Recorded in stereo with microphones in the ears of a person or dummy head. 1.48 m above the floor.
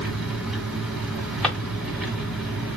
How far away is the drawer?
About 2.5 m.